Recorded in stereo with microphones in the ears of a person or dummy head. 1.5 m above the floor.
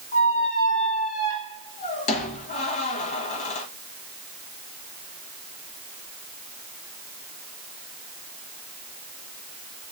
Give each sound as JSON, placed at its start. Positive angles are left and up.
{"t": 0.1, "sound": "a squeak", "side_deg": 35, "distance_m": 1.0}